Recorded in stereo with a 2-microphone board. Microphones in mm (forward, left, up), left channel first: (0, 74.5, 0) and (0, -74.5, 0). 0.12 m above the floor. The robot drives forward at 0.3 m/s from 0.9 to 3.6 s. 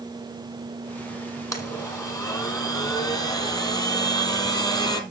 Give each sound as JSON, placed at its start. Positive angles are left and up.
{"t": 1.5, "sound": "a blender", "side_deg": 20, "distance_m": 2.5}